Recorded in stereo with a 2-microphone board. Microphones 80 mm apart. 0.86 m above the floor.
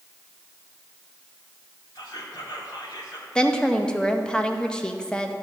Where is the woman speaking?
10° left (ahead or behind), 0.7 m.